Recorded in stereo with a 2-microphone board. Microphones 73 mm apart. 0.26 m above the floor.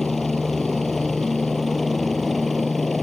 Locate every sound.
0.0 s a helicopter: centre (ahead or behind)